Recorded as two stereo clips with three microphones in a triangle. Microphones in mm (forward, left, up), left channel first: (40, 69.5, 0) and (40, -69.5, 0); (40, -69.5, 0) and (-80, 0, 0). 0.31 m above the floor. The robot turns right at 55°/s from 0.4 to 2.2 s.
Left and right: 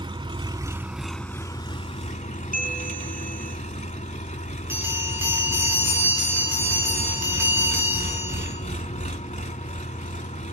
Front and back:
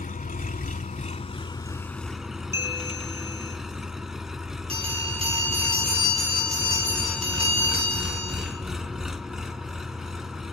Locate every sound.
0.0 s an engine running: 35° right, 1.0 m; by 10.5 s 65° left, 1.0 m
2.5 s a bell: 80° left, 6.5 m
4.7 s a bell: 165° right, 8.5 m